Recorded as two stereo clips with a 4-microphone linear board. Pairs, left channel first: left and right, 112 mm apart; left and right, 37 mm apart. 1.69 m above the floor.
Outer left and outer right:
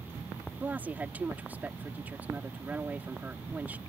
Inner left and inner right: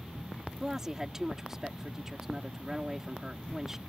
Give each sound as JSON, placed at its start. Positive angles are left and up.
{"t": 0.6, "sound": "a woman speaking", "side_deg": -15}